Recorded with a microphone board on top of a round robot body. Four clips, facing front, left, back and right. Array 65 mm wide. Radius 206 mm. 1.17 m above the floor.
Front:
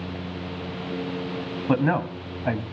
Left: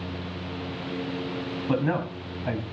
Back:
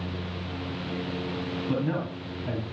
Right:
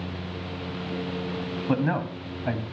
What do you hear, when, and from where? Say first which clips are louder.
1.7 s a man speaking: even, front 8 dB; 10° right, 2.5 m